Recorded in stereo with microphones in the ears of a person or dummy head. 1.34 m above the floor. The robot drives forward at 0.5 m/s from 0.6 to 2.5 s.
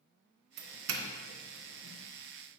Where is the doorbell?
75° right (ahead or behind), 0.9 m; by 2.0 s 50° right (ahead or behind), 1.2 m.